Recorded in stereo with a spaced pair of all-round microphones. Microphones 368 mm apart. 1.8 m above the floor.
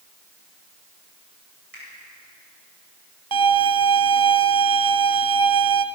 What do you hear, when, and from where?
1.7 s a finger snap: 80° right, 8.5 m
3.3 s a violin: 75° right (ahead or behind), 0.8 m